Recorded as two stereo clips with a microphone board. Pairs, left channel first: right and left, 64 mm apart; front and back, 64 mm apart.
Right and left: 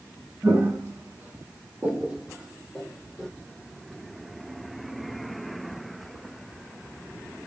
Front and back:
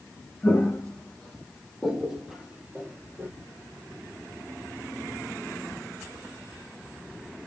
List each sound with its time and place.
0.4 s footsteps: 65° left, 1.5 m; by 3.3 s straight behind, 1.2 m